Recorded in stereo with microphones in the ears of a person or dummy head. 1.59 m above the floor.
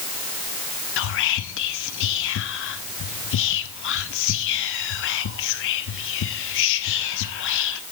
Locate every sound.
1.0 s whispering: 65° left (ahead or behind), 0.6 m